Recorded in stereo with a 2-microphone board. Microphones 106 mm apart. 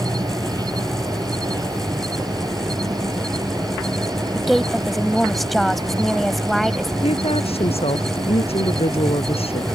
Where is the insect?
40° right (ahead or behind).